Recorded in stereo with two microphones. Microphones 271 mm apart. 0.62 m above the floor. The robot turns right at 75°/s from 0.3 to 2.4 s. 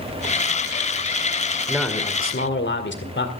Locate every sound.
1.7 s a man speaking: 5° right, 2 m; by 3.3 s 45° left, 2 m